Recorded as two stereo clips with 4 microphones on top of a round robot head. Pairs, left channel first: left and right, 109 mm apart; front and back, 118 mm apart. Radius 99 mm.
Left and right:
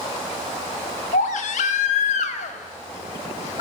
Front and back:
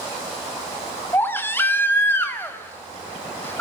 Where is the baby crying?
70° left, 0.7 m.